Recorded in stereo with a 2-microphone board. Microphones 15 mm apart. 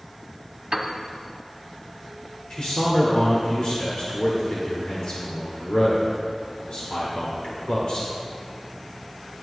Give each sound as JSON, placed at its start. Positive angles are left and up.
{"t": 0.7, "sound": "a piano", "side_deg": -30, "distance_m": 1.1}
{"t": 2.5, "sound": "a man speaking", "side_deg": 70, "distance_m": 1.8}